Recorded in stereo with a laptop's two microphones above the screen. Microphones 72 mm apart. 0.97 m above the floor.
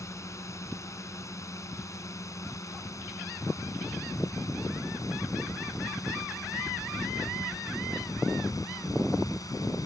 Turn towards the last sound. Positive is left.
turn(degrees=55)  # may be behind; listen again after turning